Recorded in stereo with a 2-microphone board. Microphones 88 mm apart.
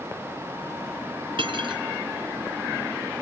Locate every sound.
1.4 s cutlery clinking: 70° right (ahead or behind), 1.5 m